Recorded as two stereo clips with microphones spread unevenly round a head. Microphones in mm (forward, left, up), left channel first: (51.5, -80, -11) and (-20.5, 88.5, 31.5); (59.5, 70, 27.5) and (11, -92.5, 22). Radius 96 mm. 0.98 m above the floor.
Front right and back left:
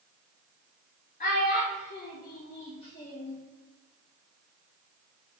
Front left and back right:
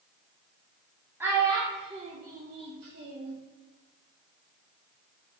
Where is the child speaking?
30° right, 0.8 m; by 3.4 s 135° right, 0.7 m.